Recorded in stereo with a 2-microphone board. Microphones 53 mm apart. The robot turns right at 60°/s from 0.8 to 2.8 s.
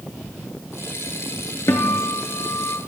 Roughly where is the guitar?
Ahead left.